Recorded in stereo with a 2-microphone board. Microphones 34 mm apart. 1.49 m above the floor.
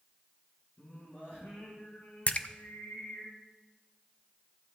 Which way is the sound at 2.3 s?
40° left (ahead or behind).